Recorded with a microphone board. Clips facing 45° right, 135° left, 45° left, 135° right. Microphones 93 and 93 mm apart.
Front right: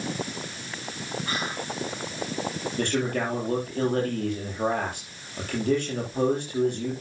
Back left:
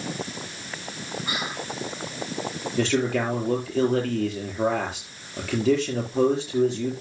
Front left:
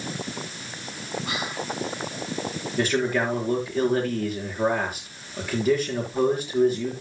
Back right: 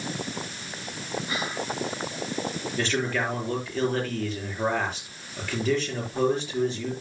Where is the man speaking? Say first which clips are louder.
Back left 4 dB, front left 4 dB; 125° left, 7.5 m.